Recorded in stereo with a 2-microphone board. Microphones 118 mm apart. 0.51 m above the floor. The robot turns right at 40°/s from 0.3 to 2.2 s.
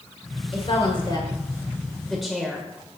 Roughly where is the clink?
No clink in this recording.